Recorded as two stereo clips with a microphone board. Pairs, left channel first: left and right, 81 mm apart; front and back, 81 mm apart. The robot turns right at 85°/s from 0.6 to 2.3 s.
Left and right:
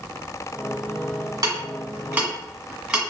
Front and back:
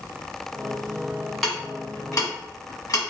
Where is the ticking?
90° right, 1.6 m; by 3.0 s 15° right, 1.6 m.